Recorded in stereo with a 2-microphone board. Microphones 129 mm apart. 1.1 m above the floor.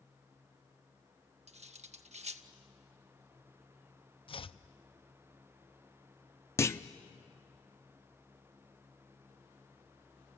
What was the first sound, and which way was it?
Cutlery clinking, 60° right (ahead or behind).